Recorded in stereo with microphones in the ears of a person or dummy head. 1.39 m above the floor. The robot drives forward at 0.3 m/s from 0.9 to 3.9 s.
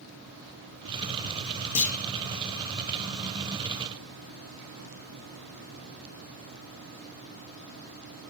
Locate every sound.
1.8 s a clunk: 70° left (ahead or behind), 0.9 m